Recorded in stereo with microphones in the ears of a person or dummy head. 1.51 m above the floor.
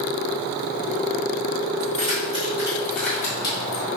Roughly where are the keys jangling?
Right.